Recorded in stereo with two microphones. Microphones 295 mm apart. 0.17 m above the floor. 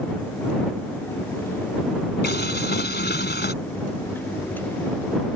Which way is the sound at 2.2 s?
35° left (ahead or behind).